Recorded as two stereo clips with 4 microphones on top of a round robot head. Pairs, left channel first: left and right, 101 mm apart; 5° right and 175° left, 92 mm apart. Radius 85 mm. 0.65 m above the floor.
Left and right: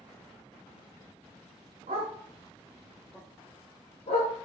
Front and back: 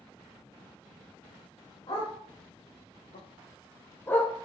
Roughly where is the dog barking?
Ahead right.